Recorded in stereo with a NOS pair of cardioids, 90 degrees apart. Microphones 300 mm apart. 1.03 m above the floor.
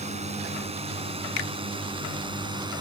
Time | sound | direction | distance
0.0 | a drone | 20° right | ?
1.4 | a finger snap | 65° left | ?